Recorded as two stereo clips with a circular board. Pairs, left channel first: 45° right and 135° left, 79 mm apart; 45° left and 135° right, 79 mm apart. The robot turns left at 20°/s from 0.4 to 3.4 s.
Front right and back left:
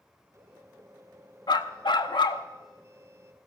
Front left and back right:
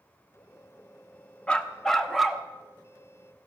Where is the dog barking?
30° right, 0.9 m; by 2.5 s 50° right, 0.9 m.